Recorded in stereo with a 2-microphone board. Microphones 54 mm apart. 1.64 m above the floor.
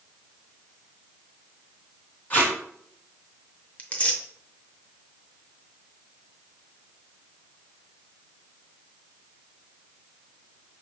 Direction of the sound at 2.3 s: 30° left (ahead or behind).